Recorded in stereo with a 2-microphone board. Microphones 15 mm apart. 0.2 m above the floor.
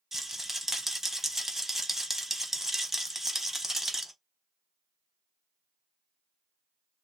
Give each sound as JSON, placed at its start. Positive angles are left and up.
{"t": 0.1, "sound": "a rattle", "side_deg": -25, "distance_m": 0.6}